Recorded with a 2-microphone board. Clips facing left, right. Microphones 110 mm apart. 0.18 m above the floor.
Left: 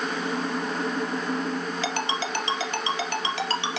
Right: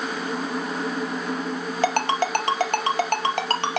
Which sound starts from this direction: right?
A ringtone, at 1.8 s.